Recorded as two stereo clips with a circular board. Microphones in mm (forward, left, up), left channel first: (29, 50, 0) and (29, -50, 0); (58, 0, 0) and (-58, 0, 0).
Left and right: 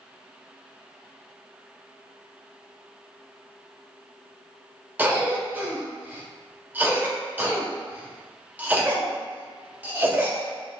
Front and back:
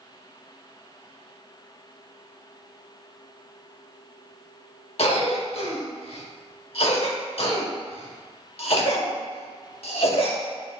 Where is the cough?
20° right, 1.2 m.